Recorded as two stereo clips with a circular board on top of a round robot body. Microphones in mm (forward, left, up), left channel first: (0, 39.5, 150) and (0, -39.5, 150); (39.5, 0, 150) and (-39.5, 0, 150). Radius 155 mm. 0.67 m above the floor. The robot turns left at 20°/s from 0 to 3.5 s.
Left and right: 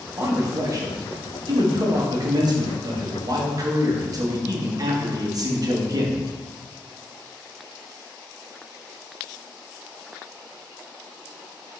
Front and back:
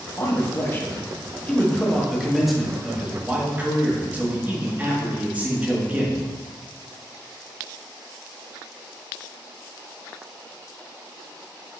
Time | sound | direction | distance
0.2 | a man speaking | 45° right | 1.2 m